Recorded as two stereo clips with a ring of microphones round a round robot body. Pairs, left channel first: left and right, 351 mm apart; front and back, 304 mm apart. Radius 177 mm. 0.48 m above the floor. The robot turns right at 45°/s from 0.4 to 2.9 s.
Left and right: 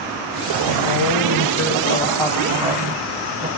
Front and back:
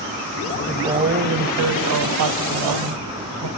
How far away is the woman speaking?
About 3 m.